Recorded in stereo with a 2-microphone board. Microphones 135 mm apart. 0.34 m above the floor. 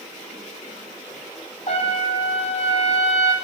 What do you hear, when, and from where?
1.7 s a trumpet: 50° left (ahead or behind), 1.8 m